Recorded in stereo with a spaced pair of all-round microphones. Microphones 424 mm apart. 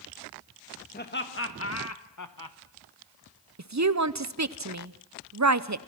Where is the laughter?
25° left (ahead or behind), 2.5 m; by 2.6 s 55° left (ahead or behind), 1.4 m.